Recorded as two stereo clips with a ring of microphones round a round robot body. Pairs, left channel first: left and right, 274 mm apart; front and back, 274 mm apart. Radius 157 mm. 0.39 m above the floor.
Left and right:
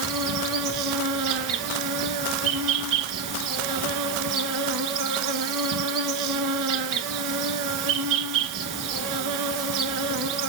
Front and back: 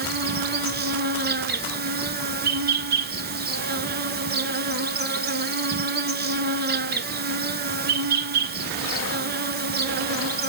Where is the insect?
125° right, 1.0 m.